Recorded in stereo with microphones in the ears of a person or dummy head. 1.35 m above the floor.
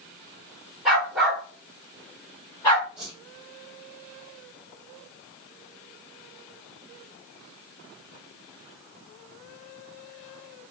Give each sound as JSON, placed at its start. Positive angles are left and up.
{"t": 0.8, "sound": "a dog barking", "side_deg": 0, "distance_m": 1.9}
{"t": 3.0, "sound": "a whoosh", "side_deg": -5, "distance_m": 2.0}